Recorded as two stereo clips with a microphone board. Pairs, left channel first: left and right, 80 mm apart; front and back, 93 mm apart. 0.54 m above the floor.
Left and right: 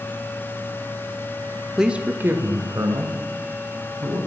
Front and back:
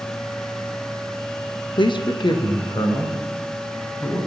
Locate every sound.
1.8 s a man speaking: 5° right, 1.0 m; by 4.2 s 50° right, 4 m